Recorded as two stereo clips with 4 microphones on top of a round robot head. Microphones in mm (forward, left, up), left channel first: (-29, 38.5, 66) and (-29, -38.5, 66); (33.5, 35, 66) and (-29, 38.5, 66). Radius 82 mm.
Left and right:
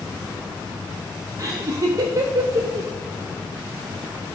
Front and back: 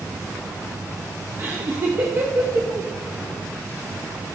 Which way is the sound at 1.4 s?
130° right.